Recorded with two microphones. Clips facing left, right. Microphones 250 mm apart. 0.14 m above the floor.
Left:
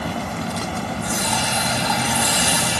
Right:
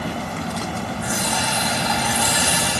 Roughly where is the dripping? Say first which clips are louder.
Even; centre.